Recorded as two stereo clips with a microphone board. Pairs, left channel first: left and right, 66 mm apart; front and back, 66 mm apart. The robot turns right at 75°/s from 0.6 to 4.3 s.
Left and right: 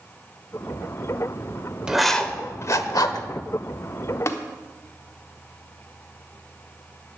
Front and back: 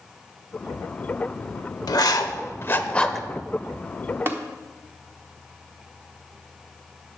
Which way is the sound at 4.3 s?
130° left.